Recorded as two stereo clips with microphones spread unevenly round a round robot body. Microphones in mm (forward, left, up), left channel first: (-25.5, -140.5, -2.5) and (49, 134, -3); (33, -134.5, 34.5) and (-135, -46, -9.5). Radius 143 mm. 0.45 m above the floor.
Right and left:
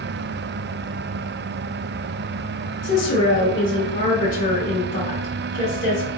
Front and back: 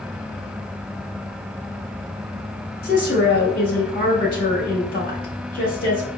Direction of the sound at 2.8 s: 60° right.